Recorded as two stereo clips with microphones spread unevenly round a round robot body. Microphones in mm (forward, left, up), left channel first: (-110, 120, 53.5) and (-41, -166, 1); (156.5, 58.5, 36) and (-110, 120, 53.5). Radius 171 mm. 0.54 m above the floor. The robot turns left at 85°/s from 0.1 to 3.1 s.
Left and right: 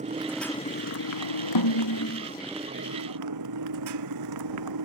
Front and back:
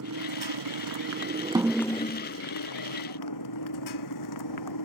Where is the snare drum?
90° left; by 2.3 s 30° left.